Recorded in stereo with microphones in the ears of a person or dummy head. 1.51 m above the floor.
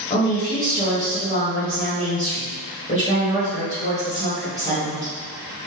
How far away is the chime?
I don't hear a chime.